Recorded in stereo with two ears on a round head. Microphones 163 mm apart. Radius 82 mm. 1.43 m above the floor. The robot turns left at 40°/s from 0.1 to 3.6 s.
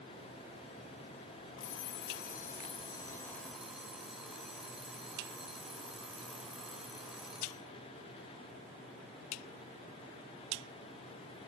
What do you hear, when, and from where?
1.6 s an alarm clock: 80° left, 3.5 m; by 7.6 s straight ahead, 3.5 m